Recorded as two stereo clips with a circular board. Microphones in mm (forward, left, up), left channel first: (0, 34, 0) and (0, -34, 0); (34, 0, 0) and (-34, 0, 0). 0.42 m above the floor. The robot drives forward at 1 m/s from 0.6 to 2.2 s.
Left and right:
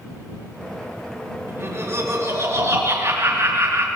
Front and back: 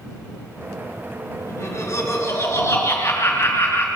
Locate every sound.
1.5 s laughter: 40° right, 6 m; by 3.9 s 45° right, 5.5 m